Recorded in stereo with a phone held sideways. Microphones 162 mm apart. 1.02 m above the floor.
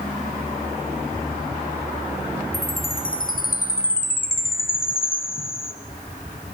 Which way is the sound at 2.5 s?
60° left (ahead or behind).